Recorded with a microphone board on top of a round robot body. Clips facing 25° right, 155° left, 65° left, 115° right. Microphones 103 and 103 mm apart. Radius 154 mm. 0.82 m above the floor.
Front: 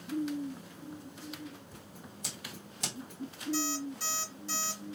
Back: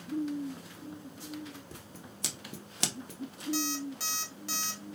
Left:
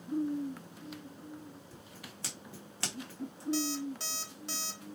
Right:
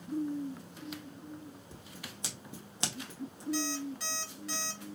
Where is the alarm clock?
130° left, 1.3 m.